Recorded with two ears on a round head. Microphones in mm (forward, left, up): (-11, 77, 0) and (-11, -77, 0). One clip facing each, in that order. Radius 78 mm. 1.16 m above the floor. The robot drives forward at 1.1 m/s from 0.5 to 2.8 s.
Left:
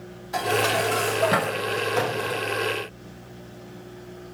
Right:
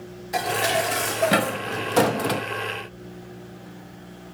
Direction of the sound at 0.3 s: 20° right (ahead or behind).